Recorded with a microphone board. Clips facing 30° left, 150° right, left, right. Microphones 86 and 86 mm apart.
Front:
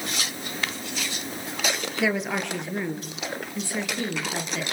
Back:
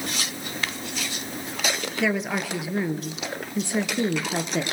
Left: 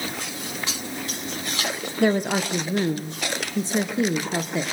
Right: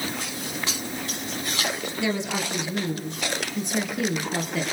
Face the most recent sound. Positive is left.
turn(degrees=155)